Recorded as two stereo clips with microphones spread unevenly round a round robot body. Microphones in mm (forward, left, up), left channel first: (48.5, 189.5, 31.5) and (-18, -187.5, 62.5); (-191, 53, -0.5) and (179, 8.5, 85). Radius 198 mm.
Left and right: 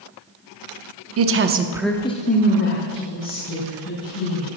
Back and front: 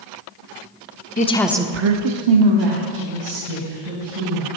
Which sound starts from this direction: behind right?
A woman speaking, at 1.2 s.